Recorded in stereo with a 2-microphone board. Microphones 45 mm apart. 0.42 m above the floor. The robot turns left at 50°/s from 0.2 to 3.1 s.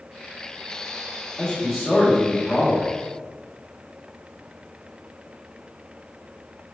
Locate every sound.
1.4 s a man speaking: 10° left (ahead or behind), 1.4 m; by 2.9 s 20° right (ahead or behind), 1.4 m